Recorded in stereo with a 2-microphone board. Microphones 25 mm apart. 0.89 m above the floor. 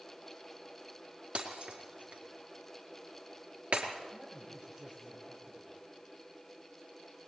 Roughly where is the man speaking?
Right.